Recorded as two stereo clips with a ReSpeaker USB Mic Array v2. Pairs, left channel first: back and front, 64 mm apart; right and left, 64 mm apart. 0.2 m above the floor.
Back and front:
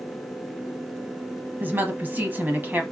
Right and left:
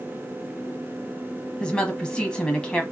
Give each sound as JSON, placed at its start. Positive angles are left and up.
{"t": 1.6, "sound": "a woman speaking", "azimuth_deg": -25, "distance_m": 1.1}